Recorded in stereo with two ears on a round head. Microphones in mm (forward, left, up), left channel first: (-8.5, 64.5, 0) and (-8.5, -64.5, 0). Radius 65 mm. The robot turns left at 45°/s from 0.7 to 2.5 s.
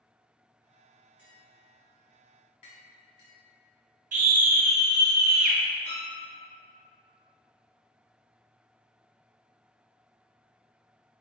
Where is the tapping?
10° right (ahead or behind), 1.8 m; by 3.3 s 45° left (ahead or behind), 1.8 m.